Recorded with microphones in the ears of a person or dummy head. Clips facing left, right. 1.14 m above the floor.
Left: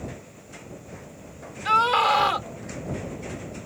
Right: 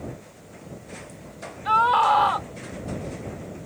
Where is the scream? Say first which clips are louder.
Right 2 dB; 30° left (ahead or behind).